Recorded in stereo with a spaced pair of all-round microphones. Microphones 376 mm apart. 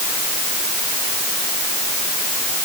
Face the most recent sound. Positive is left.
No sound to turn to.